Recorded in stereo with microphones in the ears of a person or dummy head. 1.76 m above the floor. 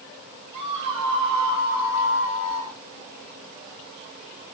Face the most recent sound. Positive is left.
turn(degrees=-5)  # may be behind; listen again after turning